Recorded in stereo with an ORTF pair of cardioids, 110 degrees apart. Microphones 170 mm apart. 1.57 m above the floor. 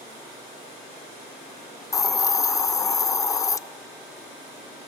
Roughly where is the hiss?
Ahead.